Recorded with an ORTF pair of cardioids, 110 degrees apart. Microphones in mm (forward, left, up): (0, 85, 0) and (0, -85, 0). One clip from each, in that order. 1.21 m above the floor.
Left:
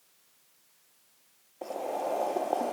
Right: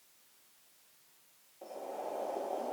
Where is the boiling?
65° left, 0.7 m.